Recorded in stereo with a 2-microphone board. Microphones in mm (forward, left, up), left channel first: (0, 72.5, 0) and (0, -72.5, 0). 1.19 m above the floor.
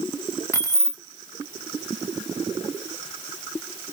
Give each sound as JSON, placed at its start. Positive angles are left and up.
{"t": 0.5, "sound": "keys jangling", "side_deg": 20, "distance_m": 0.6}